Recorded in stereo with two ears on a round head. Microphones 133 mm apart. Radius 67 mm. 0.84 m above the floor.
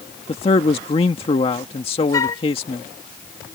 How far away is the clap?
No clap in this recording.